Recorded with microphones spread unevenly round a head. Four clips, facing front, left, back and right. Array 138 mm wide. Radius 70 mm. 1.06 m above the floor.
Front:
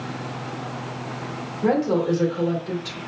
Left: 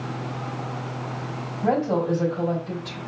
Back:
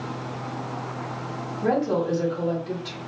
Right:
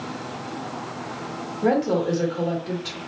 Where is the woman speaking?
85° right, 3 m.